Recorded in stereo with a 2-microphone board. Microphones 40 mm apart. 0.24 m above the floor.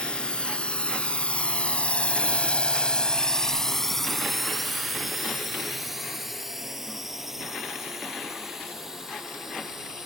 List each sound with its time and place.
0.0 s a drone: 25° left (ahead or behind); by 10.1 s 15° right (ahead or behind)